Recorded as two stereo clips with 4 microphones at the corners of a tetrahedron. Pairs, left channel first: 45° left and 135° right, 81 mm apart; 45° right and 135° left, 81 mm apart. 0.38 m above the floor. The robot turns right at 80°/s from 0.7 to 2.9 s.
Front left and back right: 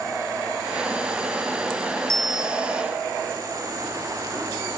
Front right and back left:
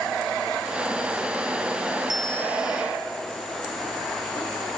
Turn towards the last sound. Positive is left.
turn(degrees=-120)